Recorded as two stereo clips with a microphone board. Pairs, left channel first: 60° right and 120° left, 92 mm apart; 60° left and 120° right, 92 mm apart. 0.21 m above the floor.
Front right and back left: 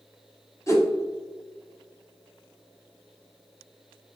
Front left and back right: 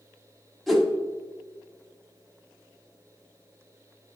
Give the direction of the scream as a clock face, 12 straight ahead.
No scream in this recording.